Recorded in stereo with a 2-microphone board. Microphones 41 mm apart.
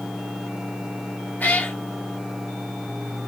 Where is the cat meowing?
40° left (ahead or behind), 2.0 m.